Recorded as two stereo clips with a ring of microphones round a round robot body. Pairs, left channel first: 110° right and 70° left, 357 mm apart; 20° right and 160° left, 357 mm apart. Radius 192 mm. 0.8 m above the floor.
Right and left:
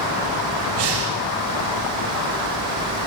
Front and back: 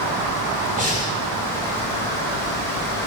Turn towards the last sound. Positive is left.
turn(degrees=85)